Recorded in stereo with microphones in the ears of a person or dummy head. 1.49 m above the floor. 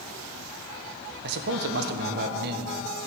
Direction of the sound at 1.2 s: 60° right (ahead or behind).